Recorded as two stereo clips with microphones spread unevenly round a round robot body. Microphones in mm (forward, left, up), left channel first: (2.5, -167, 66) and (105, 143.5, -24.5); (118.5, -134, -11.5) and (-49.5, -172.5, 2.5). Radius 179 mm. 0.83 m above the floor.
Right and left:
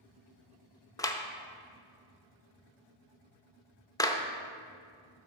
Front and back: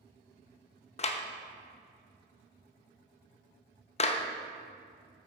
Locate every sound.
1.0 s a clap: 15° right, 0.6 m